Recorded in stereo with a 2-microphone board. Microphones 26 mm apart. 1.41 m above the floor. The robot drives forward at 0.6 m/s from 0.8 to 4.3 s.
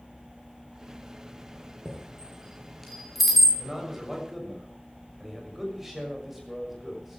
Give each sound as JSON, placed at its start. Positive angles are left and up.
{"t": 1.9, "sound": "a chime", "side_deg": 0, "distance_m": 6.0}
{"t": 3.6, "sound": "a man speaking", "side_deg": -10, "distance_m": 7.0}